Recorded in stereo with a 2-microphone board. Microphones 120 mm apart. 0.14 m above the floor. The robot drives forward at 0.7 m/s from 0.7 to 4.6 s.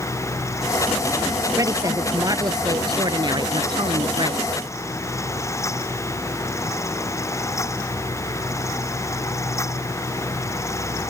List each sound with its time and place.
1.6 s a woman speaking: 30° right (ahead or behind); by 4.4 s 45° right (ahead or behind)